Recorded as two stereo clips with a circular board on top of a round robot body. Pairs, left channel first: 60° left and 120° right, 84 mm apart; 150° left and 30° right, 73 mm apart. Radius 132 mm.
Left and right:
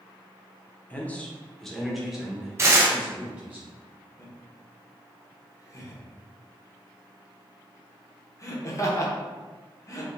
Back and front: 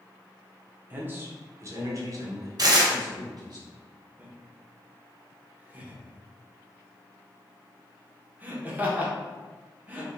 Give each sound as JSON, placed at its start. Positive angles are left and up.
{"t": 0.9, "sound": "a man speaking", "azimuth_deg": 10, "distance_m": 1.0}
{"t": 2.6, "sound": "tearing paper", "azimuth_deg": -60, "distance_m": 0.9}
{"t": 4.2, "sound": "laughter", "azimuth_deg": 25, "distance_m": 1.3}